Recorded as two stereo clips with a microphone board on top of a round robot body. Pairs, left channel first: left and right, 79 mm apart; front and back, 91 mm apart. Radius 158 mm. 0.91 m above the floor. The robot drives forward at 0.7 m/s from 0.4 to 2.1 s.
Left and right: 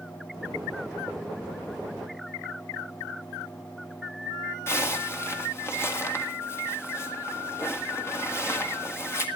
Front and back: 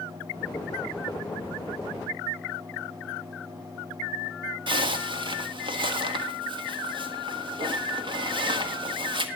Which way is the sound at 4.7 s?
150° left.